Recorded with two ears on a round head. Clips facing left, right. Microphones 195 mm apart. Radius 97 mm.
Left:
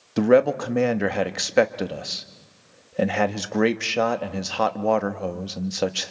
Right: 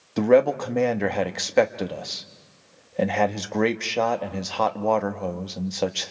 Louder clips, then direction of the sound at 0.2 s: Even; 5° left (ahead or behind).